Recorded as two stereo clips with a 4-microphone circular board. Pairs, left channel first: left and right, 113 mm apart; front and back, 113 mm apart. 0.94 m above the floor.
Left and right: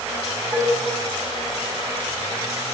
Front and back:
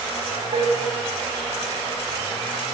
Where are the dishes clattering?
150° right, 4.5 m.